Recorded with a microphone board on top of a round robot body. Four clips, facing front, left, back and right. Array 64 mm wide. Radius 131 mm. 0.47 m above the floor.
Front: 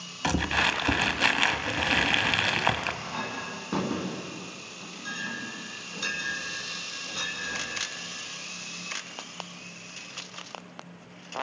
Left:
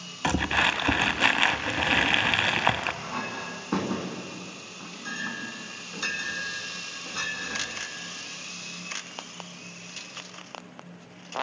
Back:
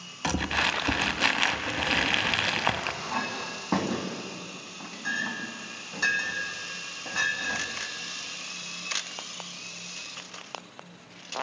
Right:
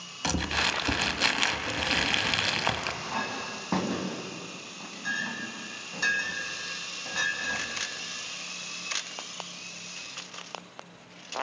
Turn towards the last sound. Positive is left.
turn(degrees=-155)